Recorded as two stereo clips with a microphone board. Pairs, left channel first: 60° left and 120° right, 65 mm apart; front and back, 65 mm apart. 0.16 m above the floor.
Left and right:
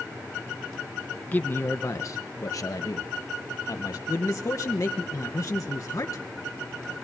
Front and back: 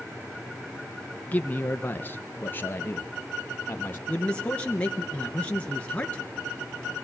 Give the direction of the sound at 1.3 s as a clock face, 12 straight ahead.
11 o'clock.